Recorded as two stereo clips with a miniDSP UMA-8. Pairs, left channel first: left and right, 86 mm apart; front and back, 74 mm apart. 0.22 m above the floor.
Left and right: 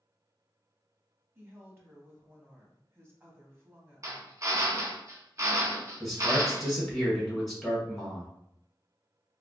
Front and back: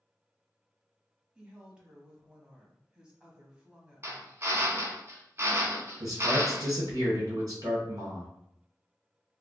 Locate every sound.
1.4 s a woman speaking: 115° right, 1.1 m
4.0 s a drill: 135° right, 0.9 m
6.0 s a man speaking: 175° left, 1.8 m